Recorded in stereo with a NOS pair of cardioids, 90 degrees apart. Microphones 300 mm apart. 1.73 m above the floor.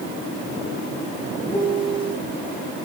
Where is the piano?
15° left, 2.5 m.